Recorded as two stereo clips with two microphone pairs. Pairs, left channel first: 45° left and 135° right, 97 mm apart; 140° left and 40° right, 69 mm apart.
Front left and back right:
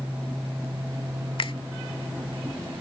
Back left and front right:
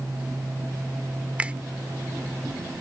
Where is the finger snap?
30° left.